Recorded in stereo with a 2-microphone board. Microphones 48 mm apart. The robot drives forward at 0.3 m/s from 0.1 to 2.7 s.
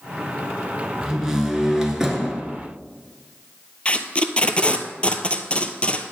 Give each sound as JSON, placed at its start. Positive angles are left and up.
{"t": 1.0, "sound": "a door slam", "side_deg": -10, "distance_m": 1.4}
{"t": 3.9, "sound": "tape being pulled", "side_deg": 25, "distance_m": 0.7}